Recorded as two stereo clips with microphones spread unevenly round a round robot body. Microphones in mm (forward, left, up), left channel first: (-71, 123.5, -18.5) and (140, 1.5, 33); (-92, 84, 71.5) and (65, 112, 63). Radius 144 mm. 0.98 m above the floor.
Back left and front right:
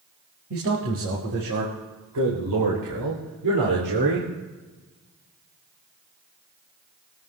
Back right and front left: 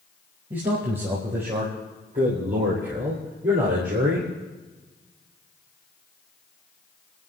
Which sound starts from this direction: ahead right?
A man speaking, at 0.5 s.